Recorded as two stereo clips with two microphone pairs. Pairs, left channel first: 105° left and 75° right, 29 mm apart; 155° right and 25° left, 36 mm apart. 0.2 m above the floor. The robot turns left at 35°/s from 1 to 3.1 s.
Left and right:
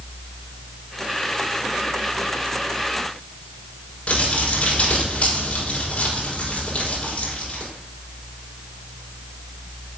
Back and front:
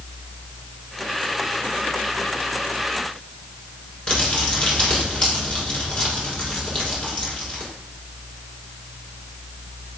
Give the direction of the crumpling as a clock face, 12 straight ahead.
7 o'clock.